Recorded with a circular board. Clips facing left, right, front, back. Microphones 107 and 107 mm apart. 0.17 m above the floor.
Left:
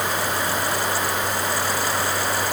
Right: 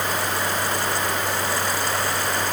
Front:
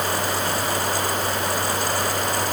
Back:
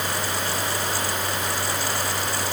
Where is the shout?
I don't hear a shout.